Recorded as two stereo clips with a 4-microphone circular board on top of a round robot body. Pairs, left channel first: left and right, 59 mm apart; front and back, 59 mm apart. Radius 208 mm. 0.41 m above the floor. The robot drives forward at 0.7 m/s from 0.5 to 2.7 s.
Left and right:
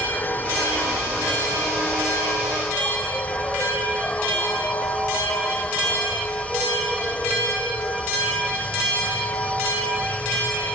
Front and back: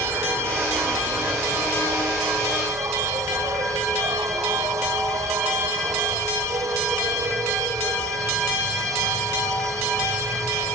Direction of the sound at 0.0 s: 145° left.